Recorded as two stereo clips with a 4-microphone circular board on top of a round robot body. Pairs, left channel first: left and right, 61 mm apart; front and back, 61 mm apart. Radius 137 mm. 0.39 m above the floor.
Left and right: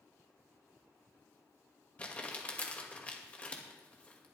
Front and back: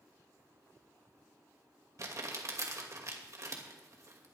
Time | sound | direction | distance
2.0 | crumpling | 155° left | 2.5 m